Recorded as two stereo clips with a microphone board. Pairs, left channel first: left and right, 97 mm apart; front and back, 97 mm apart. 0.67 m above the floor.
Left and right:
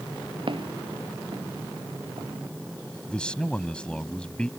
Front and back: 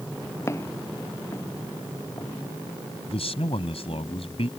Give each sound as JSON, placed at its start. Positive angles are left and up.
{"t": 0.5, "sound": "footsteps", "azimuth_deg": -60}
{"t": 3.1, "sound": "a man speaking", "azimuth_deg": 10}